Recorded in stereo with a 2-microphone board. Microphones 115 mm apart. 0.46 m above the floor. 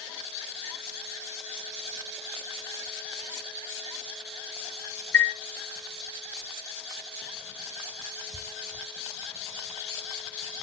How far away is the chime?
About 0.8 m.